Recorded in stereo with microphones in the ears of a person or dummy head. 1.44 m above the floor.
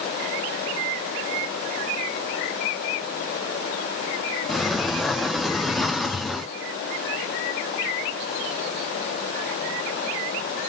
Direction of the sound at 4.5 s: 5° left (ahead or behind).